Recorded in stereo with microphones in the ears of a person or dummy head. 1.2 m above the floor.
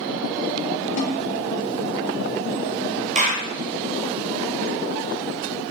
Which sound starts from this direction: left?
A snare drum, at 1.0 s.